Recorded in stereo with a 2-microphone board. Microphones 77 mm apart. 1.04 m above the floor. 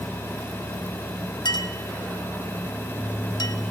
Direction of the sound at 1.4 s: 70° left (ahead or behind).